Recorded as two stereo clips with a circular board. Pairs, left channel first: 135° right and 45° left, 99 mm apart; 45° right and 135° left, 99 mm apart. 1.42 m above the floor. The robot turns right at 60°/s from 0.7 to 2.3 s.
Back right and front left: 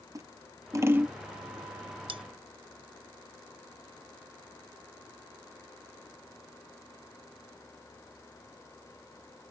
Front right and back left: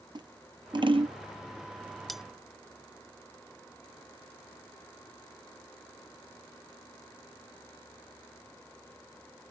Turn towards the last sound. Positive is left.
turn(degrees=55)